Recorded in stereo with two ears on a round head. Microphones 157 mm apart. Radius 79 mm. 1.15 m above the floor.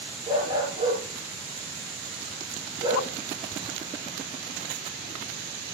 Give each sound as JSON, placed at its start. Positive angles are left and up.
{"t": 0.3, "sound": "a dog barking", "side_deg": -25, "distance_m": 5.5}